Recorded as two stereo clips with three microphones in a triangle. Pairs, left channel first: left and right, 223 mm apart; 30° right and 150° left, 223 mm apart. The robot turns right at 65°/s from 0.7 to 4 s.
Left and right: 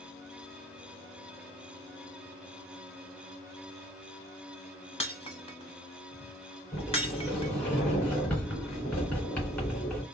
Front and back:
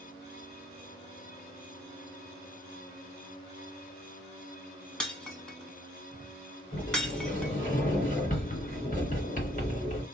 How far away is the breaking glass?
About 1.0 m.